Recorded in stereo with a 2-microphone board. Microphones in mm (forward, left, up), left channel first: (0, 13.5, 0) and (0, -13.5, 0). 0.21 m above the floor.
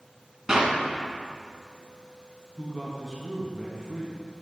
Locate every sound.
0.5 s a clap: 20° right (ahead or behind), 1.8 m
2.6 s a woman speaking: 20° left (ahead or behind), 1.7 m